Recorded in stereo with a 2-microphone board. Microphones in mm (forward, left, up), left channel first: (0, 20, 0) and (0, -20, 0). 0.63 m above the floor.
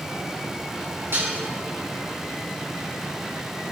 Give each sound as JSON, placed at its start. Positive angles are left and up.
{"t": 1.1, "sound": "dishes clattering", "side_deg": -70, "distance_m": 5.5}